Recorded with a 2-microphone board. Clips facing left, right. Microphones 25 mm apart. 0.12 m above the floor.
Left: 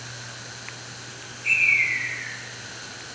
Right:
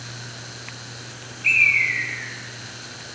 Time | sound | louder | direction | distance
1.4 | a bird | right 3 dB | 35° right (ahead or behind) | 0.9 m